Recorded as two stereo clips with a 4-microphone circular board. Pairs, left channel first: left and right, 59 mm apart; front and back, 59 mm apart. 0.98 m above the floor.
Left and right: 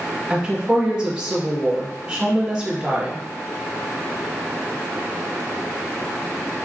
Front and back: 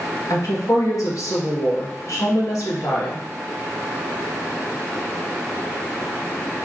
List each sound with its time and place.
0.3 s a woman speaking: 15° right, 1.2 m